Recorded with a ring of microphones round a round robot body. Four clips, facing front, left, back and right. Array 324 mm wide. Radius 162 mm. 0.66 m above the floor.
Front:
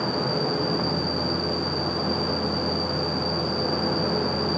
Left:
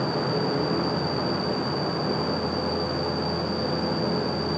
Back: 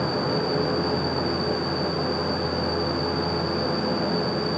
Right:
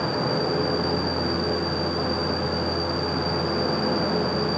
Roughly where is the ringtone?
No ringtone in this recording.